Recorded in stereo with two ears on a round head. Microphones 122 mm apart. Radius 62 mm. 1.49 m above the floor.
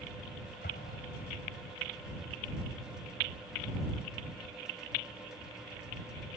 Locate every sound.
0.6 s an explosion: 80° left